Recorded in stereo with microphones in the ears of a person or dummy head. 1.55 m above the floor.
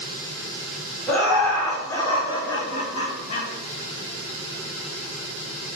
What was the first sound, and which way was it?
Laughter, 5° left (ahead or behind).